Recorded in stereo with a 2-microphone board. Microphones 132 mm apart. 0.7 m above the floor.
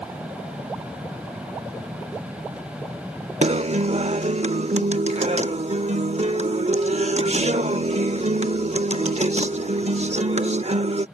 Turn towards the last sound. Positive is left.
turn(degrees=-60)  # may be behind; listen again after turning